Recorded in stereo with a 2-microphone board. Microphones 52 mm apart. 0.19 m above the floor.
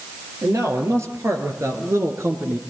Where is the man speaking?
75° right (ahead or behind), 5.5 m; by 2.6 s 50° right (ahead or behind), 3 m.